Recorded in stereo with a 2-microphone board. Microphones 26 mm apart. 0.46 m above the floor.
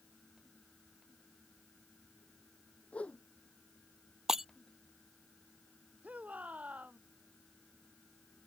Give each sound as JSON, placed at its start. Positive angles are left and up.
{"t": 2.9, "sound": "a whoosh", "side_deg": 55}
{"t": 4.3, "sound": "breaking glass", "side_deg": -20}
{"t": 6.0, "sound": "a shout", "side_deg": -75}